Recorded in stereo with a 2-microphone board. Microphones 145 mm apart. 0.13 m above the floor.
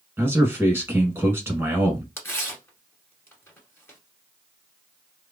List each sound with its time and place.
0.2 s a man speaking: 15° right (ahead or behind), 1.1 m
2.2 s tearing paper: 15° left (ahead or behind), 1.0 m